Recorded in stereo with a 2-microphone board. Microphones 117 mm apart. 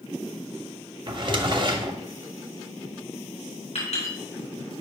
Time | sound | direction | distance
1.1 | a drawer | 40° right (ahead or behind) | 0.8 m
3.8 | a clink | 65° left (ahead or behind) | 4 m